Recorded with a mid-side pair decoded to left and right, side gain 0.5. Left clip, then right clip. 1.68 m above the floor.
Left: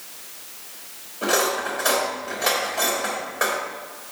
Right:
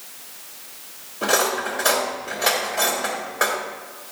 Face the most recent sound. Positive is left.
turn(degrees=-25)